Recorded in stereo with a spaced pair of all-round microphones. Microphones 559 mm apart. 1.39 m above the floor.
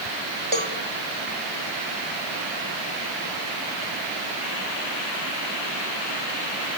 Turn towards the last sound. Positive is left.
turn(degrees=-55)  # may be behind; listen again after turning